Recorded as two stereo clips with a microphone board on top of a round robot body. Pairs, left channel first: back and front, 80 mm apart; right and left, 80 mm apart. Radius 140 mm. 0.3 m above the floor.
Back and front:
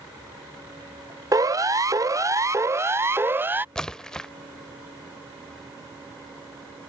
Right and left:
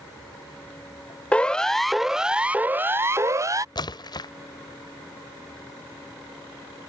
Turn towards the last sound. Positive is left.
turn(degrees=-100)